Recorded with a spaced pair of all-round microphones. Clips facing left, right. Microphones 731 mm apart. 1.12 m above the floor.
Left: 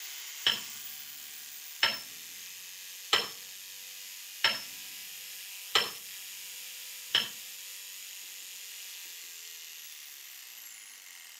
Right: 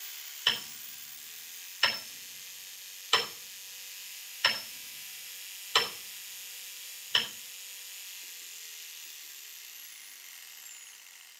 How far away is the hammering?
About 3.5 m.